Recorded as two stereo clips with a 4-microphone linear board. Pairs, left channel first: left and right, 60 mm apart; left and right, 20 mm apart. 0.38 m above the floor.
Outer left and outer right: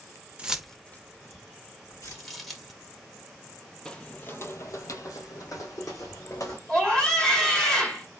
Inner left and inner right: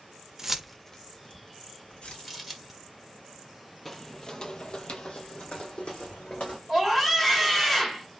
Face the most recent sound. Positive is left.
turn(degrees=10)  # may be behind; listen again after turning